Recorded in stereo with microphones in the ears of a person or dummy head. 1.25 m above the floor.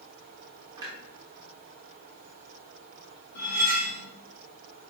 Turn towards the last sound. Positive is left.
turn(degrees=60)  # may be behind; listen again after turning